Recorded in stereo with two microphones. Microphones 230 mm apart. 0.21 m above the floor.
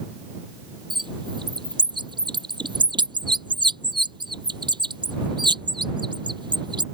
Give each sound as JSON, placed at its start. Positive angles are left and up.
{"t": 0.9, "sound": "a bird", "side_deg": -20}